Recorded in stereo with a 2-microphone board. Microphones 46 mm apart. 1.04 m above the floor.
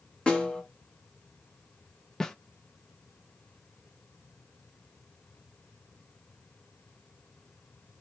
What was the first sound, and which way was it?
A snare drum, 20° left (ahead or behind).